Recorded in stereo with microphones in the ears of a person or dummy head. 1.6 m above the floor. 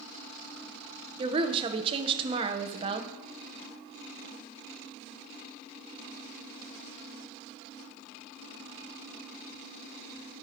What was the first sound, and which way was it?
A woman speaking, 30° right (ahead or behind).